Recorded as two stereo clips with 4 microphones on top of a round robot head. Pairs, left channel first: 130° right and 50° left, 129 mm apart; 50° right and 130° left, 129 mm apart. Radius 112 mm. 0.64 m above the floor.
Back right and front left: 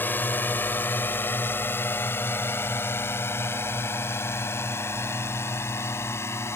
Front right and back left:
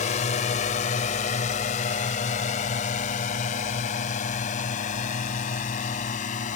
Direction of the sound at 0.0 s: 60° right.